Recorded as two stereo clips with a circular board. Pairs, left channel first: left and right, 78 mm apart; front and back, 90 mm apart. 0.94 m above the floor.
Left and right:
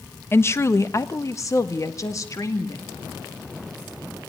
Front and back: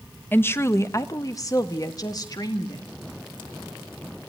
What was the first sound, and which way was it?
A woman speaking, 55° left.